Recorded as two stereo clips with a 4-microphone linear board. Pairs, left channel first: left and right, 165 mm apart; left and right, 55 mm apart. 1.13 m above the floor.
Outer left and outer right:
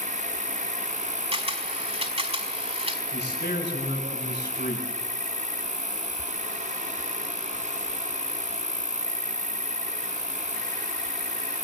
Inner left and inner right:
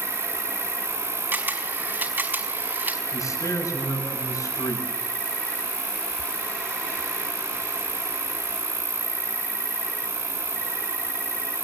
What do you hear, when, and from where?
0.0 s an insect: 25° left (ahead or behind), 1.1 m
1.3 s a camera shutter: 35° right (ahead or behind), 4.5 m
3.1 s a man speaking: 80° left, 8 m